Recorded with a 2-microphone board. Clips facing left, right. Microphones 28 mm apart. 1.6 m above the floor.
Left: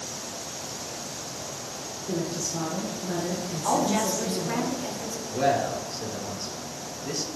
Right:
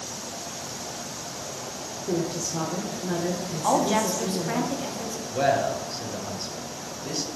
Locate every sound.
2.1 s a woman speaking: 70° right (ahead or behind), 1.2 m
3.6 s a woman speaking: 75° right (ahead or behind), 1.6 m
5.3 s a man speaking: 50° right (ahead or behind), 1.6 m